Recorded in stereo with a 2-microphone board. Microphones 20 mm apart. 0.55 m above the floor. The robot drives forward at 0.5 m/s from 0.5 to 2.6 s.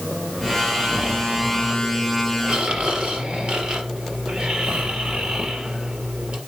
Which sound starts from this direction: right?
Snoring, at 0.4 s.